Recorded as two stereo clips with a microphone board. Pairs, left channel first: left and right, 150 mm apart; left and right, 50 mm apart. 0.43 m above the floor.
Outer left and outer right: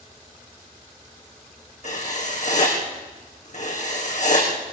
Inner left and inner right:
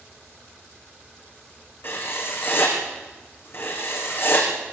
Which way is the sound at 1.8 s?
55° left (ahead or behind).